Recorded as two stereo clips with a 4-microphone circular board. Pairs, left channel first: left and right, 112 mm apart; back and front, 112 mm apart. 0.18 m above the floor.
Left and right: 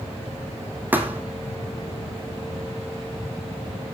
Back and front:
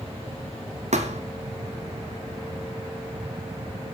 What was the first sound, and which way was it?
A thud, 15° right.